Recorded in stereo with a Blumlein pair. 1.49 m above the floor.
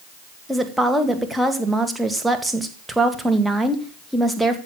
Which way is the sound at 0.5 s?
5° right.